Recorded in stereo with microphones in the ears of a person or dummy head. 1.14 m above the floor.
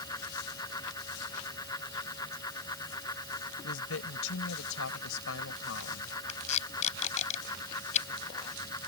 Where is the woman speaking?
80° left.